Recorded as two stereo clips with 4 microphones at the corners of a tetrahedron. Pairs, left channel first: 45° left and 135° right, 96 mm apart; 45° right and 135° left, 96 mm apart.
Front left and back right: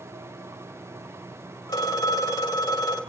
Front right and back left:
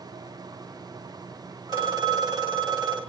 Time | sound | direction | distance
1.7 | a phone ringing | 90° left | 2.5 m